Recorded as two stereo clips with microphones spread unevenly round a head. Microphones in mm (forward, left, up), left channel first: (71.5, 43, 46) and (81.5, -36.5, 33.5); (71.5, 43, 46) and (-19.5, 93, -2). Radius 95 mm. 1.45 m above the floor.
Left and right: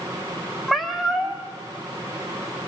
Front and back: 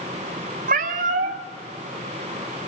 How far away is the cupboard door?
No cupboard door in this recording.